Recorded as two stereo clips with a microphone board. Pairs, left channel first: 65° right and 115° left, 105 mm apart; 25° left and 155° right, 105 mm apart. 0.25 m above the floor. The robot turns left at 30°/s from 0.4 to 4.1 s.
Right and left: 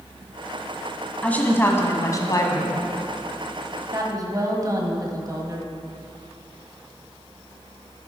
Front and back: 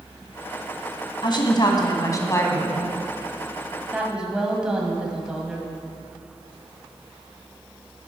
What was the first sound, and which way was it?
A woman speaking, 5° left.